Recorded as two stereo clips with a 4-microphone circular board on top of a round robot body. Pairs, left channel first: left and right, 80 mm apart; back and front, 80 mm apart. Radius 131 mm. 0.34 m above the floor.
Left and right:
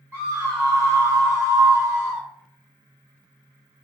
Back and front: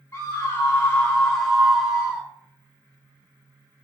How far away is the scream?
About 1.7 m.